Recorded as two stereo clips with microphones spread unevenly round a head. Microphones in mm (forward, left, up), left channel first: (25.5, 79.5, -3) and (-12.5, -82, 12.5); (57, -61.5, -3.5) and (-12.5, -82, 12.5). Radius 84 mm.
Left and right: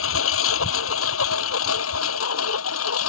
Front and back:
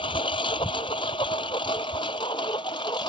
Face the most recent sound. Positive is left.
turn(degrees=80)